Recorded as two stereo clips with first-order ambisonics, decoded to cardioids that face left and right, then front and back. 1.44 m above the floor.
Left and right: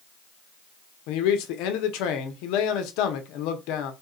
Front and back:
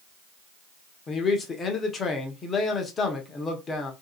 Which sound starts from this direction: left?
A man speaking, at 1.1 s.